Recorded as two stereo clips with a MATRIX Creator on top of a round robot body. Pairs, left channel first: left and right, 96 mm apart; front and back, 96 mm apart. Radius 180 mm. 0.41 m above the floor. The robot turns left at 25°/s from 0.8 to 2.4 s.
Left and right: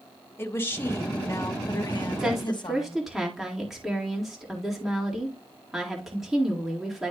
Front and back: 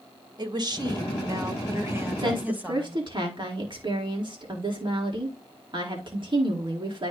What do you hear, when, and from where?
0.4 s a woman speaking: 150° left, 1.6 m; by 3.0 s 110° left, 1.6 m
2.2 s a woman speaking: 170° right, 2 m; by 7.1 s 175° right, 2 m